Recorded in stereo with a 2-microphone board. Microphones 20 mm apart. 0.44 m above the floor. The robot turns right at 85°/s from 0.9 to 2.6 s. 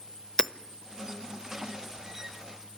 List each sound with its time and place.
0.4 s hammering: 30° left (ahead or behind), 0.7 m